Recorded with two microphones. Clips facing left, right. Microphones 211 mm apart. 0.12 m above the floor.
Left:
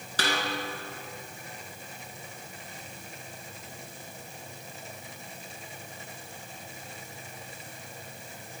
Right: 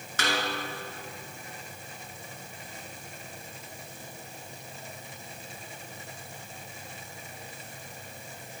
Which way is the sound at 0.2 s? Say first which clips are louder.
Even; 35° left (ahead or behind).